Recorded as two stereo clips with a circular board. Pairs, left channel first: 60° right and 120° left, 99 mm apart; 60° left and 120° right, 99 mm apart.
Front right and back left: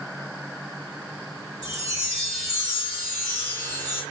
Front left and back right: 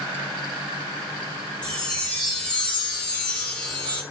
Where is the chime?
135° left, 1.8 m.